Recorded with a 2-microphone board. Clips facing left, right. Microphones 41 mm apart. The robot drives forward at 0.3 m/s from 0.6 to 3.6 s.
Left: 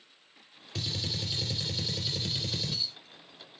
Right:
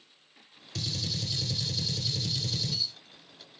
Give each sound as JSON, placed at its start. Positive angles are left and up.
{"t": 0.8, "sound": "a gunshot", "side_deg": 20, "distance_m": 0.9}